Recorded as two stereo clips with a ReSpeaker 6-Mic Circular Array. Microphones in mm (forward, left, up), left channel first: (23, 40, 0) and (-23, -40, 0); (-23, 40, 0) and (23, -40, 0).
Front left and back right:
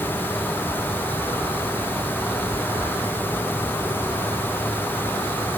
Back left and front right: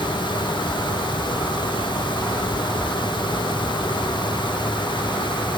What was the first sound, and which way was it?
Only background noise.